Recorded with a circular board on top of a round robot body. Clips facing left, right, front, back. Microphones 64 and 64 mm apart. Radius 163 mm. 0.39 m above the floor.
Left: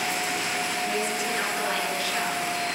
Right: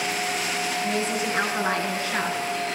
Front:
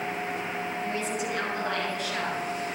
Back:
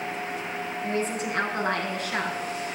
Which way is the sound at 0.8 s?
135° right.